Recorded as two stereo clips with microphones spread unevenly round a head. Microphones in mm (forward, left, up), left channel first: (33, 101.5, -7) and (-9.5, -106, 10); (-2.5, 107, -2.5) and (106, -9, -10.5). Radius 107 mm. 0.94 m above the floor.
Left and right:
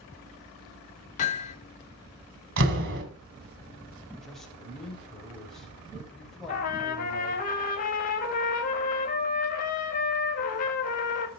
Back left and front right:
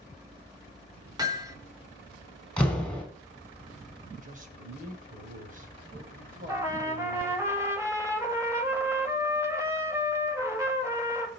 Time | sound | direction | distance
1.2 | hammering | 20° left | 3.5 m
2.6 | a door slam | 140° right | 4.5 m
4.2 | a man speaking | 10° right | 5 m
6.5 | a trumpet | 25° left | 5 m